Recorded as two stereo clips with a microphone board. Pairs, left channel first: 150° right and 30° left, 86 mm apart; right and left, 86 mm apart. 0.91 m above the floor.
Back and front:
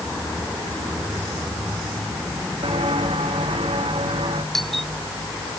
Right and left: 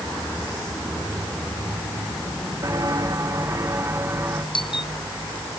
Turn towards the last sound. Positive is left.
turn(degrees=-60)